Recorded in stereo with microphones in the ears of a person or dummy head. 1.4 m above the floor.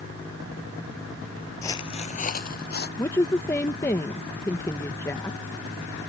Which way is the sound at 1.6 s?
15° left (ahead or behind).